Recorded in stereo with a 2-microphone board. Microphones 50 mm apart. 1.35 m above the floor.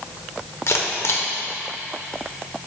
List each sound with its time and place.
0.7 s a camera shutter: 65° left (ahead or behind), 0.9 m